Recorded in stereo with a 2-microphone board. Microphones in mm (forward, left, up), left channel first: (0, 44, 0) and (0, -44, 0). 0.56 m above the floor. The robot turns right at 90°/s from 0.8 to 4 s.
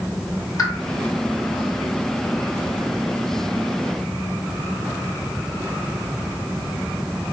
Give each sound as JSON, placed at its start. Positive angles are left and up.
{"t": 0.6, "sound": "a pop", "side_deg": 35, "distance_m": 1.7}